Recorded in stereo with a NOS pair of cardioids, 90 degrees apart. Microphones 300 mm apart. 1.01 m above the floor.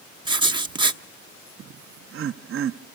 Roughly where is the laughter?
Ahead right.